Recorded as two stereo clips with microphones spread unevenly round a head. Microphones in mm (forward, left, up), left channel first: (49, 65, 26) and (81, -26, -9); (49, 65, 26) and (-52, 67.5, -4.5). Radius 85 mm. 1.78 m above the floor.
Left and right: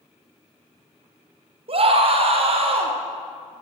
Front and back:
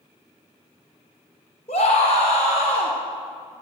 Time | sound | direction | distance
1.7 | a scream | 45° right | 2.5 m